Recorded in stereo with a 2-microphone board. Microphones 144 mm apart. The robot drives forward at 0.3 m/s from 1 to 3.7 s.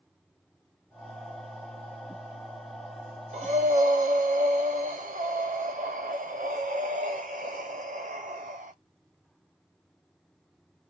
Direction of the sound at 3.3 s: 55° right (ahead or behind).